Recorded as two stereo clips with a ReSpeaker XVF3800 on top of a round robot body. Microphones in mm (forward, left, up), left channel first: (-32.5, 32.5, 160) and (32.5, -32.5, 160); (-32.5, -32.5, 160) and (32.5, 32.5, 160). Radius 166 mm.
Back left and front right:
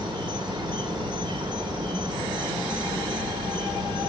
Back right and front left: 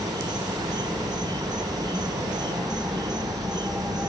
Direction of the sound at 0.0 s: 5° right.